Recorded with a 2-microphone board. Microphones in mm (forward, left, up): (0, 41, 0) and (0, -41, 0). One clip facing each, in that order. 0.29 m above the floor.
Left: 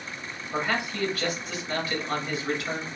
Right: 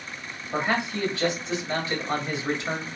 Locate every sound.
0.5 s a man speaking: 25° right (ahead or behind), 1.6 m